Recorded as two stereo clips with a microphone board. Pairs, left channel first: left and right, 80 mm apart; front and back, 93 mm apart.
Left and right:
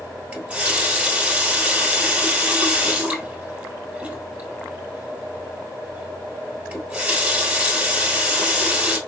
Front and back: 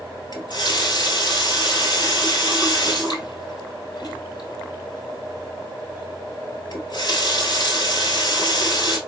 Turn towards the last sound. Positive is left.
turn(degrees=-20)